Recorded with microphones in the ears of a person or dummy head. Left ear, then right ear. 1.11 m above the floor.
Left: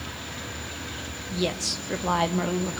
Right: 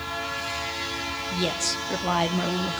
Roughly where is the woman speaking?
Centre.